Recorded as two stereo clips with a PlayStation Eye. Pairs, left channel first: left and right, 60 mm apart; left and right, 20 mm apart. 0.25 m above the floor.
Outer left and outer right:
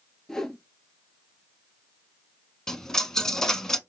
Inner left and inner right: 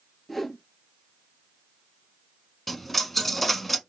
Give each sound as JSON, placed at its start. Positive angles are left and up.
{"t": 0.3, "sound": "a whoosh", "side_deg": 10, "distance_m": 0.6}
{"t": 2.7, "sound": "a dropped coin", "side_deg": 10, "distance_m": 0.6}